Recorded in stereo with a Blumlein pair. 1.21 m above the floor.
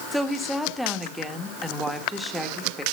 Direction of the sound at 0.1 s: Straight ahead.